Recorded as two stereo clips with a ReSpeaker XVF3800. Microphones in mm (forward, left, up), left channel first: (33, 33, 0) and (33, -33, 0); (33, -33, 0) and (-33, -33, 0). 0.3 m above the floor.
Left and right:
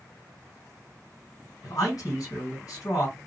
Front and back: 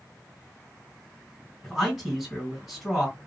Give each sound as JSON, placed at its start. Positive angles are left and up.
{"t": 1.6, "sound": "a man speaking", "azimuth_deg": 95, "distance_m": 2.5}